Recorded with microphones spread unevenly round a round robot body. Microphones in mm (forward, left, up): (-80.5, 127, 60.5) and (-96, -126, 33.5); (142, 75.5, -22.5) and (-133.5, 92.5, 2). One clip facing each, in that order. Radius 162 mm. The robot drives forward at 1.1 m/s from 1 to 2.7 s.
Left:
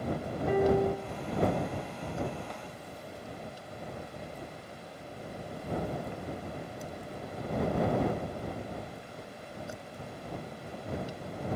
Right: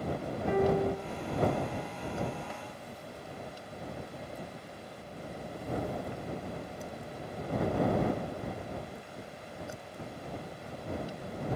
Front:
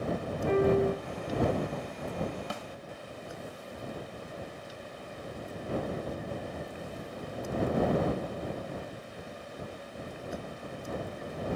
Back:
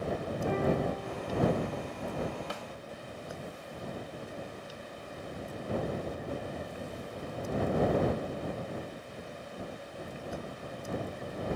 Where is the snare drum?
10° right, 1.0 m.